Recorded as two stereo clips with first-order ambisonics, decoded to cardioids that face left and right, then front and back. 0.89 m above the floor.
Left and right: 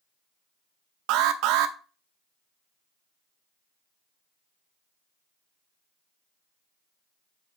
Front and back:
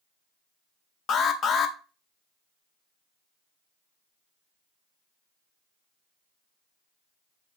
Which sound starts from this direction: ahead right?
An alarm, at 1.1 s.